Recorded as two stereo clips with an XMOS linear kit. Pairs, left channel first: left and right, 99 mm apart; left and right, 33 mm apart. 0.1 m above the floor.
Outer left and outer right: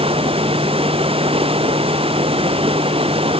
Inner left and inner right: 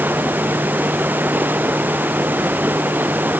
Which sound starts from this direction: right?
Running water, at 0.0 s.